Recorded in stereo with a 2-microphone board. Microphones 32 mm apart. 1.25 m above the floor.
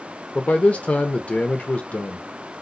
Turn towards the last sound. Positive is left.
turn(degrees=45)  # may be behind; listen again after turning